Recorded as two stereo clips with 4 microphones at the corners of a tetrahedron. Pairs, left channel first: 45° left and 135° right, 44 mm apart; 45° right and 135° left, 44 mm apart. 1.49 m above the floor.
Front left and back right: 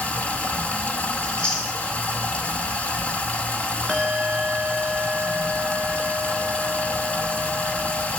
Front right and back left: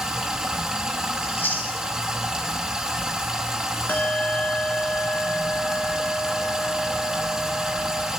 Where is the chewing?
20° right, 1.9 m.